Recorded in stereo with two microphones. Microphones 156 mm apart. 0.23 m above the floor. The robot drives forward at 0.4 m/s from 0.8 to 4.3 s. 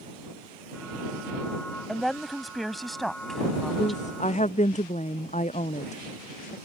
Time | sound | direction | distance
1.9 | a woman speaking | centre (ahead or behind) | ?
3.8 | a woman speaking | 50° left (ahead or behind) | ?